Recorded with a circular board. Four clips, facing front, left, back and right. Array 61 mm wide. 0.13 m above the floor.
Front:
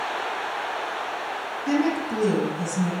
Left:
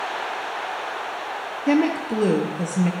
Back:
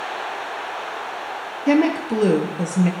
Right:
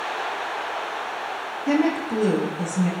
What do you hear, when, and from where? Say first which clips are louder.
1.7 s a woman speaking: left 1 dB, back 6 dB; 155° left, 2.5 m